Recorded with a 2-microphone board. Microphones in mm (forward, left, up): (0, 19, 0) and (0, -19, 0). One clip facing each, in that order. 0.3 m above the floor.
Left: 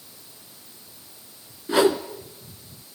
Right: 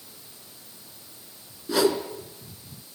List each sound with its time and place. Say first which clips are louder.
1.7 s a whoosh: left 3 dB; 35° left (ahead or behind), 1.3 m